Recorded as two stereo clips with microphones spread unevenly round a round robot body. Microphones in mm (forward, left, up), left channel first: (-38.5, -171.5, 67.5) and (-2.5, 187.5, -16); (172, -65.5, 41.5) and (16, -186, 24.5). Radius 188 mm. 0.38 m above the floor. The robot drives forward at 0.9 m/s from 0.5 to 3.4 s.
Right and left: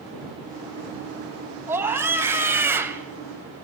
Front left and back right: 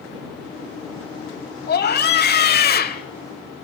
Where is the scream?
5° left, 3.5 m; by 3.0 s 10° left, 2.5 m.